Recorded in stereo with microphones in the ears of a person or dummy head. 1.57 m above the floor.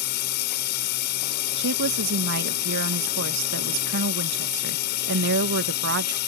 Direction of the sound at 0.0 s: 55° left (ahead or behind).